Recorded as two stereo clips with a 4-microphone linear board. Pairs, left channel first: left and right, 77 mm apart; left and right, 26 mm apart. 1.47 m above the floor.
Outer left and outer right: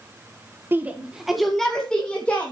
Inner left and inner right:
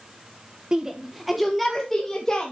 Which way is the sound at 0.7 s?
30° right (ahead or behind).